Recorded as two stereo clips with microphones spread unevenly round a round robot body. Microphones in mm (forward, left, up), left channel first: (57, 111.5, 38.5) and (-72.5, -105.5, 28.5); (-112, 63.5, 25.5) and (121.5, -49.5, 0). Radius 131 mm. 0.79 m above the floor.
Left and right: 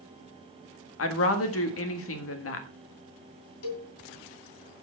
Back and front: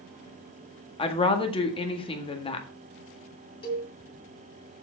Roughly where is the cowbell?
Left.